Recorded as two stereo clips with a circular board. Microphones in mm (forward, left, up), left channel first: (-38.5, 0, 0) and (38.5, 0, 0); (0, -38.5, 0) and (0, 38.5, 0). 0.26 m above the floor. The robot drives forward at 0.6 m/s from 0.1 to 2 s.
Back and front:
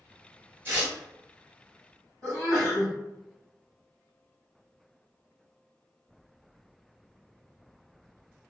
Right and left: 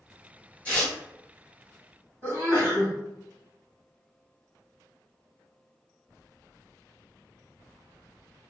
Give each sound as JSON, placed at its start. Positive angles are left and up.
{"t": 0.7, "sound": "tearing paper", "azimuth_deg": -30, "distance_m": 1.4}
{"t": 2.2, "sound": "a sneeze", "azimuth_deg": 145, "distance_m": 1.8}